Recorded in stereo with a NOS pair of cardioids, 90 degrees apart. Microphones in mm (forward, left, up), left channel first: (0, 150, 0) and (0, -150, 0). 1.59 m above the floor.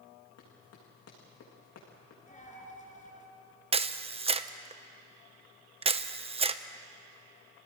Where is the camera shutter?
20° right, 1.0 m.